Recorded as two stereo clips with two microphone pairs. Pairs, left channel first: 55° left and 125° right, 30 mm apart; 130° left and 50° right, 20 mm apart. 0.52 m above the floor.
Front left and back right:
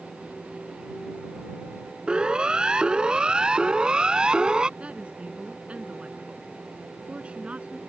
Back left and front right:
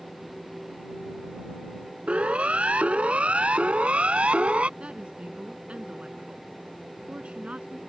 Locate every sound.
2.1 s a siren: 65° right
4.8 s a woman speaking: 80° right